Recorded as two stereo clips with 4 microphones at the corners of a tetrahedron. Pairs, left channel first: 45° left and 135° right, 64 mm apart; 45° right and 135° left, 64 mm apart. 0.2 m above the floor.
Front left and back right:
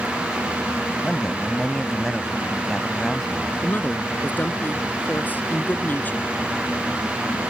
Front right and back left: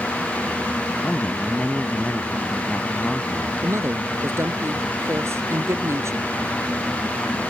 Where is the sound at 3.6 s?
105° left.